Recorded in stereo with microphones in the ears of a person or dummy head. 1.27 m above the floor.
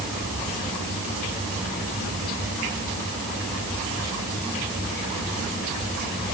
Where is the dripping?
No dripping in this recording.